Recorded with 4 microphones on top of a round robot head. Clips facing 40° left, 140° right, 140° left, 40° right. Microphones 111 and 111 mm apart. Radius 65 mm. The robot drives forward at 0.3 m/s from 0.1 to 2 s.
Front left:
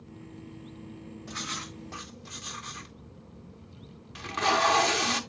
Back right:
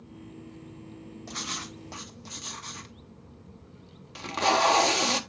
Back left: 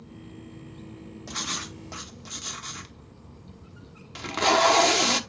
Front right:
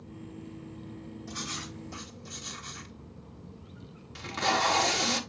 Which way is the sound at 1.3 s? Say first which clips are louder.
Back right 1 dB, back left 5 dB; 165° left.